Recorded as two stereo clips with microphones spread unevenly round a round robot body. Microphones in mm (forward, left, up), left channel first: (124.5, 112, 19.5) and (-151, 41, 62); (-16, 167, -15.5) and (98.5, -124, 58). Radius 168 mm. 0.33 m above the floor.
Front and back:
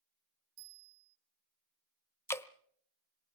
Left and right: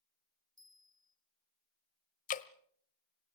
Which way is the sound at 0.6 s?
145° right.